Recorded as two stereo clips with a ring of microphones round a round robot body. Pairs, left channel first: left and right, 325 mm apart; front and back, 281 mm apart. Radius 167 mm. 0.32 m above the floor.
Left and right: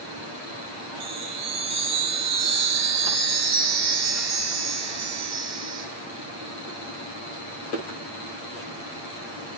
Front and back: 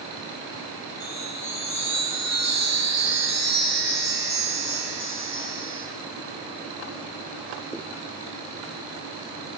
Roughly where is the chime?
Right.